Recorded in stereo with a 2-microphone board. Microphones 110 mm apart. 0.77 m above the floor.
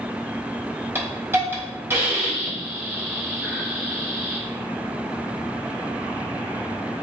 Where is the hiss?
25° right (ahead or behind), 2.5 m.